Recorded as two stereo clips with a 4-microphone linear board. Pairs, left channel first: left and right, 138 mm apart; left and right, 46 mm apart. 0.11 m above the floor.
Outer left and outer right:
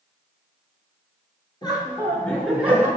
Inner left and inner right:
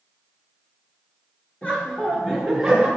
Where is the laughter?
30° left (ahead or behind), 1.6 m; by 2.9 s 15° right (ahead or behind), 1.3 m.